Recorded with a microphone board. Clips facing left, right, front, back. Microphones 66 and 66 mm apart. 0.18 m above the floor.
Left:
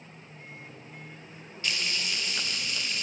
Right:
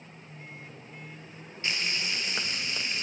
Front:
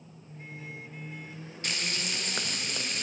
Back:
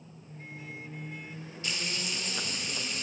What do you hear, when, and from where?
1.6 s frying: 25° right, 1.6 m